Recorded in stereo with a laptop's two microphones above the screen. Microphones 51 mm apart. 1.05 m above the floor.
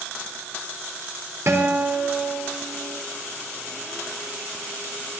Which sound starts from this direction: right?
A guitar, at 1.5 s.